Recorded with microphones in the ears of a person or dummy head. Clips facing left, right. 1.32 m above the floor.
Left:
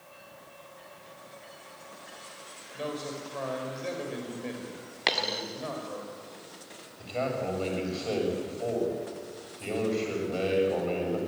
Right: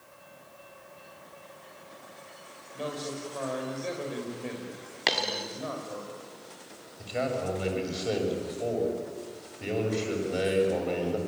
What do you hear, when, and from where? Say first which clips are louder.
2.7 s a man speaking: even; 5° left (ahead or behind), 6 m
5.1 s a dropped coin: right 1 dB; centre (ahead or behind), 1.6 m
7.0 s a man speaking: right 1 dB; 20° right (ahead or behind), 7 m